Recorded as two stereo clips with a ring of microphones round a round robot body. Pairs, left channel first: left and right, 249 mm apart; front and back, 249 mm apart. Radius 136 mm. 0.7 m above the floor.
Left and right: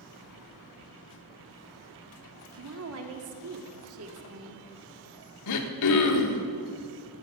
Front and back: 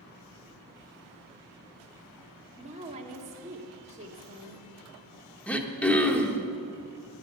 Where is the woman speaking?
115° right, 1.5 m.